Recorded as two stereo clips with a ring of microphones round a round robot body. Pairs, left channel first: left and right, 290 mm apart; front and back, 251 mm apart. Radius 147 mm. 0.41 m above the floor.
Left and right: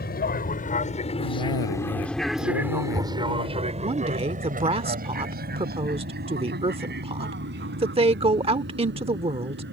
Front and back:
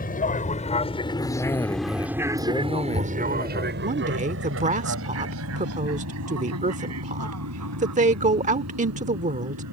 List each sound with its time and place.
0.0 s an aircraft: 45° left; by 9.7 s 145° right
1.2 s a cough: 75° left
3.8 s a woman speaking: 145° right